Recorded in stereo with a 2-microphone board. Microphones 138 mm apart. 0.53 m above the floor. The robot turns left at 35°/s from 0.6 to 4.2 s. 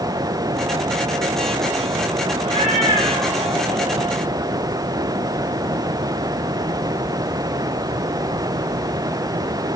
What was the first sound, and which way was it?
A cat meowing, 110° right.